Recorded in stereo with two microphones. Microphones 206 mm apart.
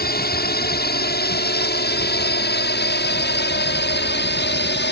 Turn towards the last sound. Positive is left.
turn(degrees=60)  # may be behind; listen again after turning